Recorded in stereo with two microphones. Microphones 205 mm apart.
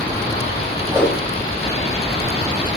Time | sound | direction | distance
0.9 | a whoosh | 5° left (ahead or behind) | 5.5 m